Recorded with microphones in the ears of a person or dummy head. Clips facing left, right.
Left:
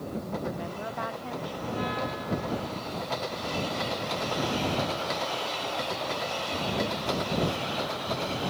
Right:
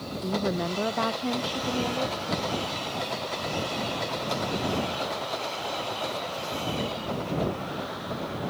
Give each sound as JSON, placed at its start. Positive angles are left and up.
{"t": 0.2, "sound": "a woman speaking", "side_deg": -65}